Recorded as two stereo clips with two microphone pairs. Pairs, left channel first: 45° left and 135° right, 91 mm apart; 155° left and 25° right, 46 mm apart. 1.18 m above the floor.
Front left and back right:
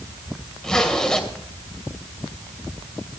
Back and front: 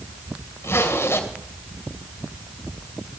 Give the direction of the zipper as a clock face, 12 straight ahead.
8 o'clock.